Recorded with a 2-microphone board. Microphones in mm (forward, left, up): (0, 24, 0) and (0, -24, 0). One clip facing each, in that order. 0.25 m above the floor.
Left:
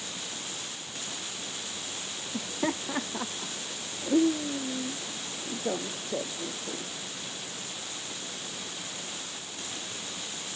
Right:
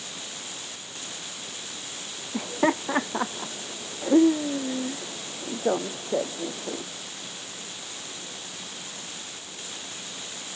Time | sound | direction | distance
2.3 | laughter | 40° right (ahead or behind) | ?